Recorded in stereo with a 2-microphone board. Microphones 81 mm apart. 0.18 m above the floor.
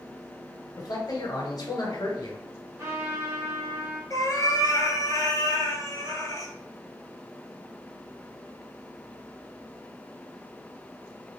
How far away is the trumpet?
About 2.5 m.